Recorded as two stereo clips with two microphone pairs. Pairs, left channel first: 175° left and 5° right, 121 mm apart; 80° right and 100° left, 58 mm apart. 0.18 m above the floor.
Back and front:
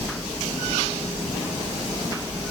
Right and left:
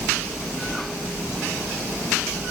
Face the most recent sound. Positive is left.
No sound to turn to.